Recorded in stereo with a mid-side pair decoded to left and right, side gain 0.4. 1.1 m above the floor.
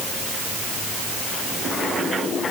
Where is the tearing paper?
No tearing paper in this recording.